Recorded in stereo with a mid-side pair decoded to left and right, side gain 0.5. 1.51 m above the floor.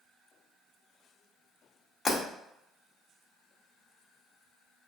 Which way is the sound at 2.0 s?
35° left.